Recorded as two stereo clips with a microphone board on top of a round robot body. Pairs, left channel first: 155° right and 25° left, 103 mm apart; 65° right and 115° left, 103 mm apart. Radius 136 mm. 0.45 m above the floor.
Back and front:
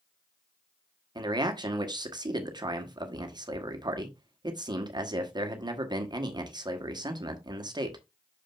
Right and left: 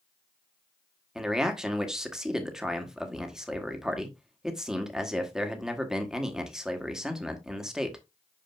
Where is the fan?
No fan in this recording.